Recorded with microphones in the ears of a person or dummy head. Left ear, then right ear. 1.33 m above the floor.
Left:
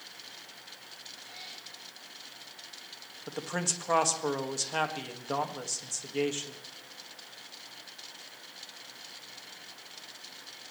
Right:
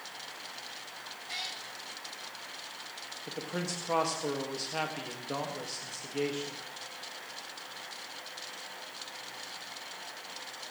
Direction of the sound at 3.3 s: 50° left (ahead or behind).